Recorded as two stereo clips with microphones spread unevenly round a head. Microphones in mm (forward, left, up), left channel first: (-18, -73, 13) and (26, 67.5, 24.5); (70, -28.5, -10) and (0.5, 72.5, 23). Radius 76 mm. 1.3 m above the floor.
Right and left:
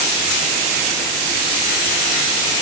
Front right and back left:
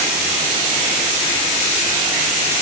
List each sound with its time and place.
Only background noise.